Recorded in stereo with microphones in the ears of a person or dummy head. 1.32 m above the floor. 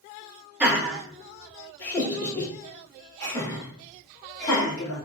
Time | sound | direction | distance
0.6 | laughter | 10° right (ahead or behind) | 0.9 m